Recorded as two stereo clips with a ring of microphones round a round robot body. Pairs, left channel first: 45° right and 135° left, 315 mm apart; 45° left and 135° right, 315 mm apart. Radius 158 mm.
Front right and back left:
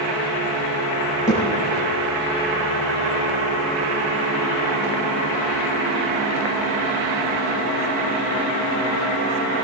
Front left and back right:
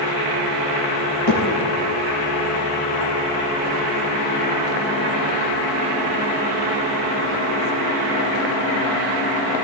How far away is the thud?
About 6 m.